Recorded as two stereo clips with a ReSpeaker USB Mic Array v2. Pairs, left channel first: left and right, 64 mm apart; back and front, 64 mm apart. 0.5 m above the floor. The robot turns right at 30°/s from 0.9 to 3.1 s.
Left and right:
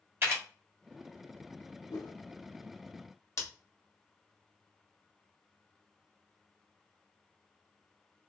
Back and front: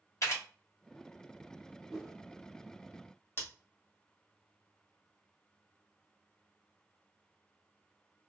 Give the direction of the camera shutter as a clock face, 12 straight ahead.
5 o'clock.